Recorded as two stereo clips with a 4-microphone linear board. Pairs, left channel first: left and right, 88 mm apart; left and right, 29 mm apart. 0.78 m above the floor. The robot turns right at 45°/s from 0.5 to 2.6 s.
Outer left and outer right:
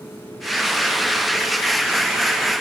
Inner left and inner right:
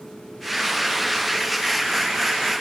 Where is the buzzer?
I don't hear a buzzer.